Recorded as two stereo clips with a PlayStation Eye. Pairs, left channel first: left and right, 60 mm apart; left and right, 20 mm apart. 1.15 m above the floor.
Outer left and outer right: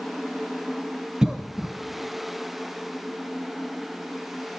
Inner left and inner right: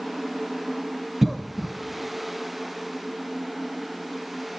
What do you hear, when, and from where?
1.2 s a cough: 10° right (ahead or behind), 0.7 m